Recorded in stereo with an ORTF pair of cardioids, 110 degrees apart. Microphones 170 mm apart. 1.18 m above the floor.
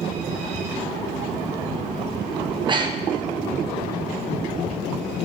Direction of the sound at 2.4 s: 30° right.